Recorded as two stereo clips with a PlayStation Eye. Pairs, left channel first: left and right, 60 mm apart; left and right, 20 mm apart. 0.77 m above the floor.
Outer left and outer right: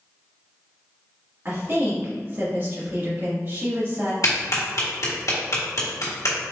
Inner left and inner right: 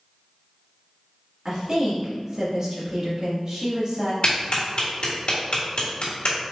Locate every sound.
1.4 s a woman speaking: 40° right (ahead or behind), 1.8 m
4.2 s a clap: 65° left (ahead or behind), 1.6 m